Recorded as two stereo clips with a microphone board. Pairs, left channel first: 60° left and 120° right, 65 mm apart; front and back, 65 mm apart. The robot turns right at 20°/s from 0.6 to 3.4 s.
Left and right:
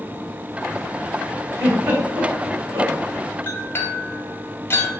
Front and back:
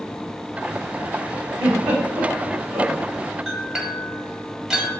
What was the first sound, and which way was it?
A giggle, 150° right.